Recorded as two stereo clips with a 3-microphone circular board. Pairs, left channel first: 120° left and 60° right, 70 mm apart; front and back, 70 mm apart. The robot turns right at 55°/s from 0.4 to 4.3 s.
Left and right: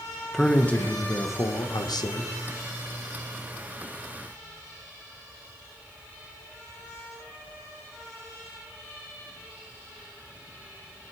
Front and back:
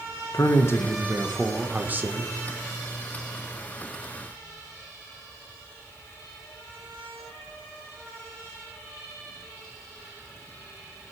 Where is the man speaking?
35° left, 1.1 m; by 2.3 s 140° left, 1.1 m.